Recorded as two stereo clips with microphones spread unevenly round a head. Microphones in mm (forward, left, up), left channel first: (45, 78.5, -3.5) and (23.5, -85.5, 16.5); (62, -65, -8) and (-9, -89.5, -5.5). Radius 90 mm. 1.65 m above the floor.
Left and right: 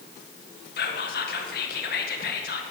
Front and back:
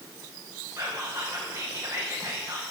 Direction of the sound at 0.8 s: 125° left.